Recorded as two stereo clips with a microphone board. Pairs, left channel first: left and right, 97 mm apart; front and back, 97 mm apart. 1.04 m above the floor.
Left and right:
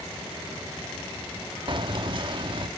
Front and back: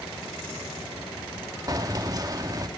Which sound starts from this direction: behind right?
Keys jangling, at 1.7 s.